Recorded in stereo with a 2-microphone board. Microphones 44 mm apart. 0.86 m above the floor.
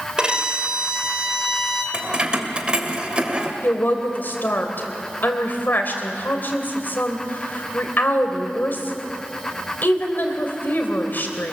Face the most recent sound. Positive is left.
turn(degrees=45)  # may be behind; listen again after turning